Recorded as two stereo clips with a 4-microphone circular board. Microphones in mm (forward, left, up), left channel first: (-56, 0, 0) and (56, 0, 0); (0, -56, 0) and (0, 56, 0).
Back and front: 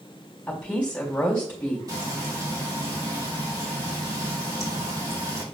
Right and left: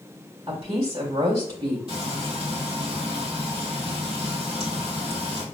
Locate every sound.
0.5 s a woman speaking: 100° left, 2 m
1.9 s frying: 55° left, 2.5 m